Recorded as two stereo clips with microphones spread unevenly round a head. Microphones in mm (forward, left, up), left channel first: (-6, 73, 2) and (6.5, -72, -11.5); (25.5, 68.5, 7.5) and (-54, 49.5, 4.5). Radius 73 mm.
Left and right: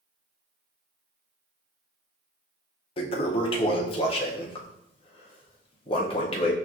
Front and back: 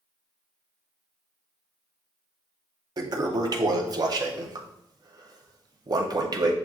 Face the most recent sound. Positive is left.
turn(degrees=150)